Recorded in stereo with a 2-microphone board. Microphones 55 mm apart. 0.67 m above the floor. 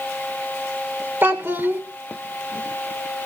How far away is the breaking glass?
I don't hear breaking glass.